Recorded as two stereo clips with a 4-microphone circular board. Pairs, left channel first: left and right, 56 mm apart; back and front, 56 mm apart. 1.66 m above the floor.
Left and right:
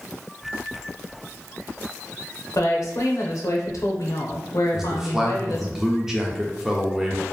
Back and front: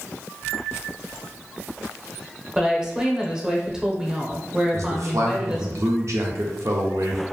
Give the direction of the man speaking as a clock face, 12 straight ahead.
12 o'clock.